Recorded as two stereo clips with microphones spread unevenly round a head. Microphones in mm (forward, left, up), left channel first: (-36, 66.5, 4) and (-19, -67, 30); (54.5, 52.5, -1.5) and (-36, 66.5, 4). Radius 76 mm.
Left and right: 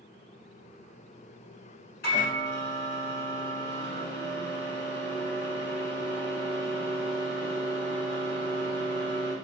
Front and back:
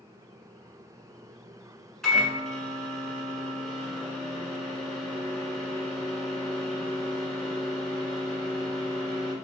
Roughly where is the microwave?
Left.